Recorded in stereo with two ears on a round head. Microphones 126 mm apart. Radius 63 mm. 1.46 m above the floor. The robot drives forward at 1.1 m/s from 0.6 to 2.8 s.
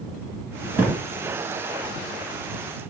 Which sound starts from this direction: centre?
A thud, at 0.8 s.